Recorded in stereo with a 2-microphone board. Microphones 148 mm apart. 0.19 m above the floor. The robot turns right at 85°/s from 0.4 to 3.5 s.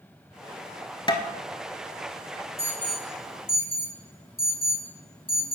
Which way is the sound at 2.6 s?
20° left (ahead or behind).